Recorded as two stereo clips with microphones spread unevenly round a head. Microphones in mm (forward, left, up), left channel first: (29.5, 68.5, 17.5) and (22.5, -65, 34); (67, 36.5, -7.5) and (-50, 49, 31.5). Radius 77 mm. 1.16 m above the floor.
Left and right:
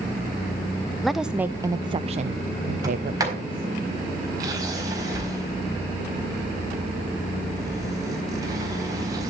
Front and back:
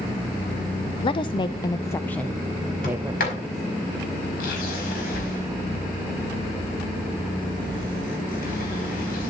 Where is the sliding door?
30° right, 4.5 m.